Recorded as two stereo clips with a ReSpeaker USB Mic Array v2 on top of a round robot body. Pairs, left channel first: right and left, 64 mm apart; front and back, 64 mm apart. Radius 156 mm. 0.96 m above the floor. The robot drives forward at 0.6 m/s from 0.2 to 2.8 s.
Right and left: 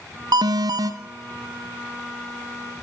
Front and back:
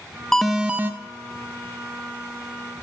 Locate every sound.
0.3 s an alarm: 85° left, 0.6 m; by 0.9 s 115° left, 0.7 m